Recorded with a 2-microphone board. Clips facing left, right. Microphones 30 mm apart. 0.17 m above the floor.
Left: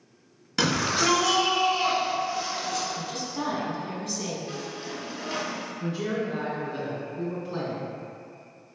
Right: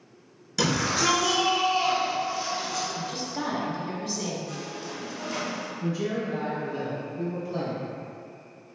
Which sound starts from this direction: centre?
A woman speaking, at 2.9 s.